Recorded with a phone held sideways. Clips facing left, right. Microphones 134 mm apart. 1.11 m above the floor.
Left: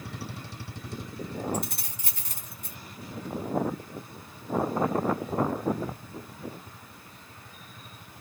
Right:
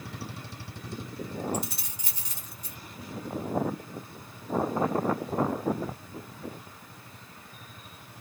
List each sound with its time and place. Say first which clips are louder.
1.5 s keys jangling: left 1 dB; 55° left (ahead or behind), 0.8 m